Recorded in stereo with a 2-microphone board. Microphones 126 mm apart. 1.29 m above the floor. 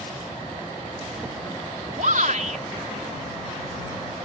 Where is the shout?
75° right (ahead or behind).